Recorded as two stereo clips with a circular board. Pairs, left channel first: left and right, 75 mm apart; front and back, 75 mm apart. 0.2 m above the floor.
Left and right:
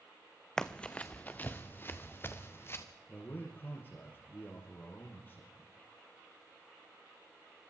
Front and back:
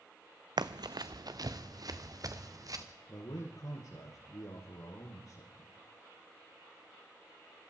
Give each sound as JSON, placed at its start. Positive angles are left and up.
{"t": 0.6, "sound": "running footsteps", "azimuth_deg": 170, "distance_m": 0.7}
{"t": 3.1, "sound": "a man speaking", "azimuth_deg": 30, "distance_m": 5.0}